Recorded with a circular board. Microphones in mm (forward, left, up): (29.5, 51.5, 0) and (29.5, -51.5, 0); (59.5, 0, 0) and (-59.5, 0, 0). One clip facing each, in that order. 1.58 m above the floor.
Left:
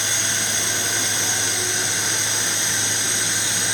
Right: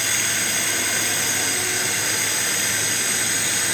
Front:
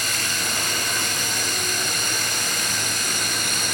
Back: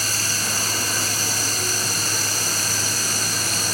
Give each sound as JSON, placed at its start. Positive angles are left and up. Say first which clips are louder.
{"t": 0.0, "sound": "running water", "louder": "even, even", "azimuth_deg": 145, "distance_m": 2.0}